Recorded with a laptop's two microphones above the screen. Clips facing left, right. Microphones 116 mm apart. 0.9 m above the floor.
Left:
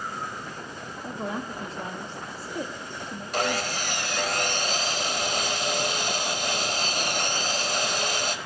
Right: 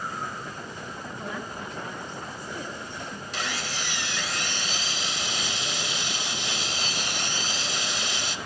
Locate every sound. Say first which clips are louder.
1.0 s a woman speaking: left 5 dB; 35° left (ahead or behind), 1.6 m
3.3 s sawing: left 8 dB; 50° left (ahead or behind), 1.3 m